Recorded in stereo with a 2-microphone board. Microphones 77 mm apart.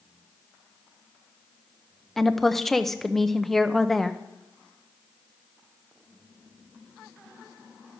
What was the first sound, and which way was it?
A woman speaking, 5° left (ahead or behind).